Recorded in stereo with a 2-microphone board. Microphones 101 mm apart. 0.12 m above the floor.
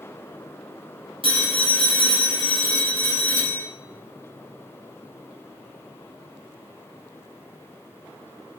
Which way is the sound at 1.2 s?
60° right (ahead or behind).